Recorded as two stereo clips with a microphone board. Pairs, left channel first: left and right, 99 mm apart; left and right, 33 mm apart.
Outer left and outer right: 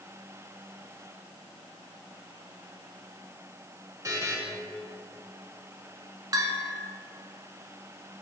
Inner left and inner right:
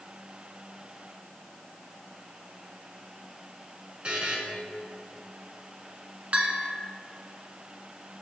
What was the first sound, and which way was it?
A buzzer, 35° right (ahead or behind).